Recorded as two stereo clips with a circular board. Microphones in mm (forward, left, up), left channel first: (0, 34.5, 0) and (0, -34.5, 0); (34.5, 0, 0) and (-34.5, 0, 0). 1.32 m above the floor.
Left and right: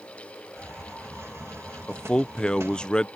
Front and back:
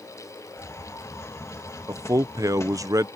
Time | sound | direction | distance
0.6 | a hiss | 40° right | ?
1.9 | a man speaking | 165° left | ?